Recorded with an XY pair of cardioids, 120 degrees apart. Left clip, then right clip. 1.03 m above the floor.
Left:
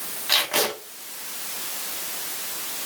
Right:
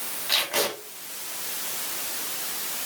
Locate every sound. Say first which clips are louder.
0.3 s tape being pulled: left 3 dB; 35° left, 3 m